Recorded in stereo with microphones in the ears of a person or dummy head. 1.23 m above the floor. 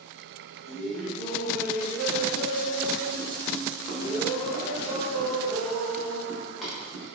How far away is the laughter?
About 1.3 m.